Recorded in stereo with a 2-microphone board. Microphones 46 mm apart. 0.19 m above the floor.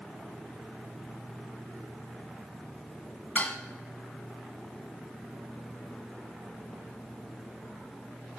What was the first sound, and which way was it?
Dishes clattering, 40° left (ahead or behind).